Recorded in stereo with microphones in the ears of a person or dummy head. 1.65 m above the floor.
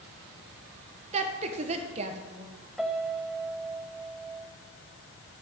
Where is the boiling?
No boiling in this recording.